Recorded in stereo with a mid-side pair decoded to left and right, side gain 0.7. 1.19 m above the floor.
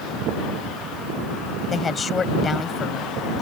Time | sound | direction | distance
1.7 | a woman speaking | 25° left | ?